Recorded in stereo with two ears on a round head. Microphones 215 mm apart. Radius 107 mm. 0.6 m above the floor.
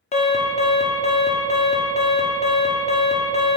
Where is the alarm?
30° left (ahead or behind), 0.9 m.